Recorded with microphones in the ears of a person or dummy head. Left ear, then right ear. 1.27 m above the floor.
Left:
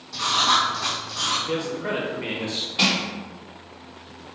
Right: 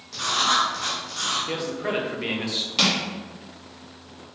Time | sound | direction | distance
0.1 | writing | 20° right (ahead or behind) | 1.3 m
1.5 | a man speaking | 20° right (ahead or behind) | 0.7 m
2.8 | crushing | 65° right (ahead or behind) | 1.8 m